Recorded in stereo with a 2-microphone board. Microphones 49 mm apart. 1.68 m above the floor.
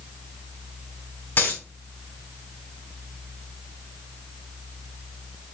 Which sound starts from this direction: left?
A dropped coin, at 1.4 s.